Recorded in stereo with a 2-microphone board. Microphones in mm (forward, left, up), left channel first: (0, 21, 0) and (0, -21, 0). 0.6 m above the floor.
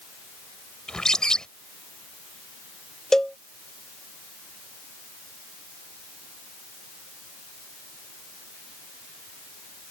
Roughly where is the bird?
Centre.